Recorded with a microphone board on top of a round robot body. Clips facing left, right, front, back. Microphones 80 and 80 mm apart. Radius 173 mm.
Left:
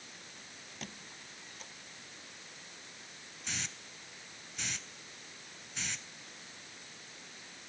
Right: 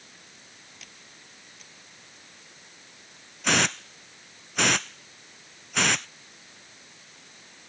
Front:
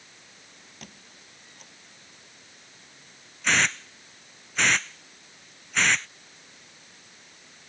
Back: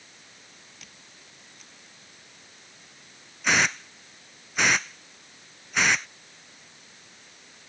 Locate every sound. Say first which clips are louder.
0.8 s a squeak: left 3 dB, front 3 dB; 40° left
3.4 s a hiss: right 19 dB, back 1 dB; 100° right